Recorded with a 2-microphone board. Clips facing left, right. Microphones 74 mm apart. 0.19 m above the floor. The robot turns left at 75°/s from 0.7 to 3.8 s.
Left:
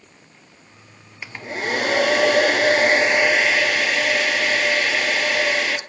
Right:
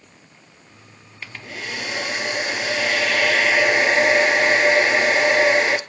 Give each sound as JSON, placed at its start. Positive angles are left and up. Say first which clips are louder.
{"t": 1.2, "sound": "a hair dryer", "louder": "left 6 dB", "azimuth_deg": 165, "distance_m": 1.0}